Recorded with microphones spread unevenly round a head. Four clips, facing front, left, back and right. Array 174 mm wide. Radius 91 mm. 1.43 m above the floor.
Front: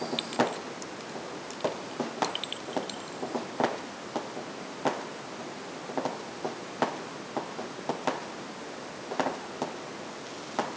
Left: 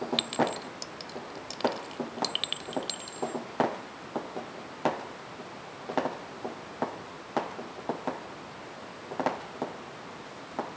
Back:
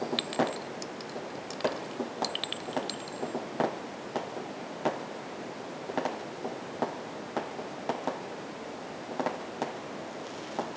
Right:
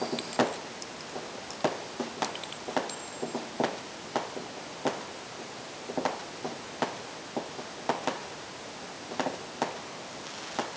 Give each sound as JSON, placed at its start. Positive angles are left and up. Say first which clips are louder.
{"t": 0.2, "sound": "a clink", "louder": "even, front 1 dB", "azimuth_deg": 90}